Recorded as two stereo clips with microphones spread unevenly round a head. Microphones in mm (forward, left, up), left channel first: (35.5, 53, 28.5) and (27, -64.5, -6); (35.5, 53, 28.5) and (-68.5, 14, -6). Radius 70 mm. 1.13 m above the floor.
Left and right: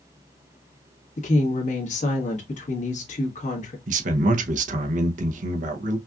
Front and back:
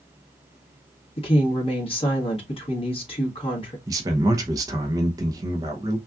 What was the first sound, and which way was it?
A woman speaking, 60° left.